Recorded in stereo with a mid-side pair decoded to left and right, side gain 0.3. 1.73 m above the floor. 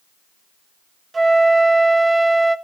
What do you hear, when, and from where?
1.1 s a flute: 45° right, 2.0 m